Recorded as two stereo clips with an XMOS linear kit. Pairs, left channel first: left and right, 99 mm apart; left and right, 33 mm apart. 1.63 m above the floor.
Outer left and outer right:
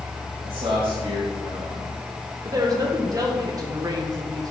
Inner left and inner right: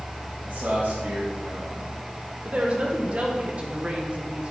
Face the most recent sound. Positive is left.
turn(degrees=-35)  # may be behind; listen again after turning